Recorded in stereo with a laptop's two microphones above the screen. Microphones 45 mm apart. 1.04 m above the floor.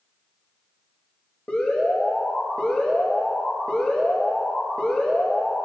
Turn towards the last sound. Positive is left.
turn(degrees=40)  # may be behind; listen again after turning